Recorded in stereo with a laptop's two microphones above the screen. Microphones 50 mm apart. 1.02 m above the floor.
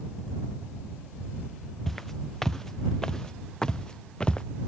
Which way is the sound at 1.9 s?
5° left (ahead or behind).